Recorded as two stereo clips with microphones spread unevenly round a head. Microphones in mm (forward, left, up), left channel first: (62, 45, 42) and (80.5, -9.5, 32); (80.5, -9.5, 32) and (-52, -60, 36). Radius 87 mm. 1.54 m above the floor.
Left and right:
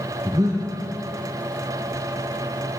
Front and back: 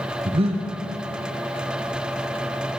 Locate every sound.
0.2 s breathing: 115° right, 1.0 m